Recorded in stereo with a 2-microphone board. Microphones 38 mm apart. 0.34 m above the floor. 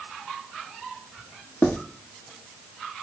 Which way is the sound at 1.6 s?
85° left.